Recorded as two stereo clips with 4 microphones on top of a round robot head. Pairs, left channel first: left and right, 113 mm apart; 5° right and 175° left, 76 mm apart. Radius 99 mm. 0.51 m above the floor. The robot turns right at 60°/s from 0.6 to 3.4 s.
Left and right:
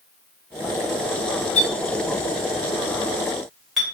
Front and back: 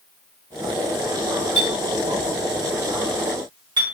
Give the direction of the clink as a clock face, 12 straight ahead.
10 o'clock.